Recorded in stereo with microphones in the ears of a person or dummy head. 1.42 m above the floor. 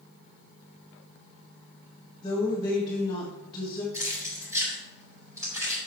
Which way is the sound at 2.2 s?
30° left (ahead or behind).